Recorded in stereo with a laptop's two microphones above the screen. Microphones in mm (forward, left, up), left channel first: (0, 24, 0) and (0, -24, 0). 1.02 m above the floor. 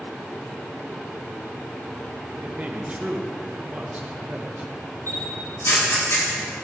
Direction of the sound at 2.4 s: 30° right (ahead or behind).